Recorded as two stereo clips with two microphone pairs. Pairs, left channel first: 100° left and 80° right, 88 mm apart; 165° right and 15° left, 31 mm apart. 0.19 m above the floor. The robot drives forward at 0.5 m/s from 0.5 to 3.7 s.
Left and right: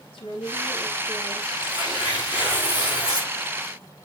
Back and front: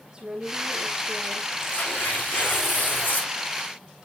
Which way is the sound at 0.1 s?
80° left.